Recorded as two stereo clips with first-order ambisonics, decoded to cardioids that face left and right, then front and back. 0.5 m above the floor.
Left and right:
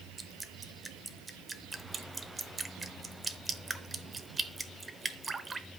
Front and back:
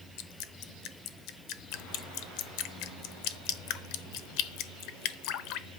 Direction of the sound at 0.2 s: 10° right.